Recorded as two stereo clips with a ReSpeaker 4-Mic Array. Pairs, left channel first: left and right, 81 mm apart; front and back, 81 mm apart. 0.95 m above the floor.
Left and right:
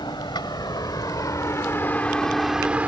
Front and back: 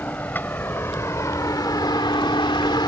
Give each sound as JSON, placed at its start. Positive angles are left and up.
{"t": 0.0, "sound": "a vehicle", "azimuth_deg": 70}